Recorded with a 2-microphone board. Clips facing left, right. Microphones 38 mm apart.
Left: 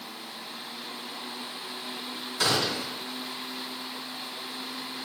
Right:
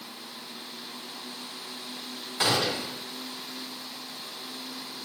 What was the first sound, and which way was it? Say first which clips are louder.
A gunshot: right 1 dB; 25° right (ahead or behind).